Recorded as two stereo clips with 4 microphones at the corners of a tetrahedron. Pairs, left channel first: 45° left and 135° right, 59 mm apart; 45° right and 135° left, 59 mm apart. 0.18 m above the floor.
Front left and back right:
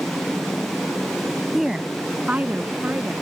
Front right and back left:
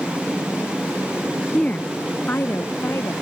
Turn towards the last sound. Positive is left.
turn(degrees=-80)